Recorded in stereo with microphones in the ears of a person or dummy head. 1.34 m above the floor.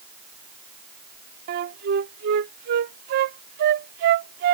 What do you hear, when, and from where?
1.5 s a flute: 40° right (ahead or behind)